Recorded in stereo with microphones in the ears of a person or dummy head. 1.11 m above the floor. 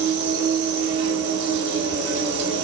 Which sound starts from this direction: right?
An insect, at 0.0 s.